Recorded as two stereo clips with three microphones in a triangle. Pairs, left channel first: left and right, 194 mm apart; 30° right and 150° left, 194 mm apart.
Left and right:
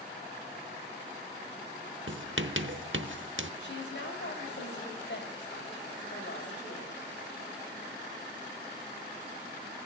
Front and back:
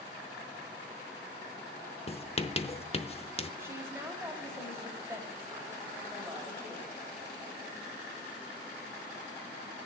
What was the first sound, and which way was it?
Writing, 90° right.